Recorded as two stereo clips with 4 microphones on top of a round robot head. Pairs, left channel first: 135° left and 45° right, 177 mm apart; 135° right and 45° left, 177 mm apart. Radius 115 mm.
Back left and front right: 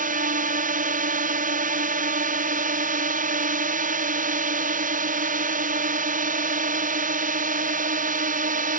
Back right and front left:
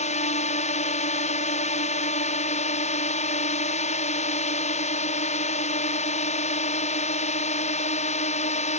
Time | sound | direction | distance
0.0 | a drone | 85° right | ?